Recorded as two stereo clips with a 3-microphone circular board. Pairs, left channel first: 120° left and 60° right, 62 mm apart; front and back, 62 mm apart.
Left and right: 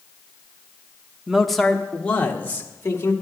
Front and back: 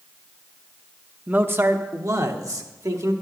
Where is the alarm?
No alarm in this recording.